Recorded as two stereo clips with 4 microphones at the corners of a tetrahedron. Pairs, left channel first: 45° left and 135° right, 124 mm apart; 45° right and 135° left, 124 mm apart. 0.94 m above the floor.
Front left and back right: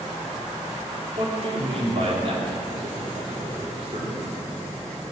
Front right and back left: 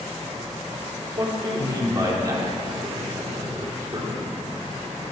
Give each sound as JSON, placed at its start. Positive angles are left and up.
{"t": 1.2, "sound": "a man speaking", "azimuth_deg": -170, "distance_m": 3.0}